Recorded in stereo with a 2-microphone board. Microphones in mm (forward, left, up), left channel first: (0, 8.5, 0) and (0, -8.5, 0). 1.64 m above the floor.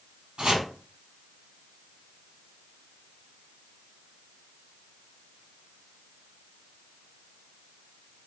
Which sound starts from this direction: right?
Chopping, at 0.4 s.